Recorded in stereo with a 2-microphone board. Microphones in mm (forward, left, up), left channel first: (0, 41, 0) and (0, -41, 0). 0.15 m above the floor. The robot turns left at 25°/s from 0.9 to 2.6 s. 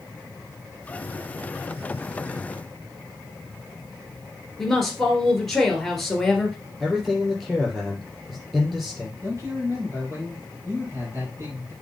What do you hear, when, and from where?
4.6 s a woman speaking: 5° left (ahead or behind), 2 m
6.8 s a man speaking: 5° right (ahead or behind), 5 m
9.2 s a man speaking: 40° right (ahead or behind), 4 m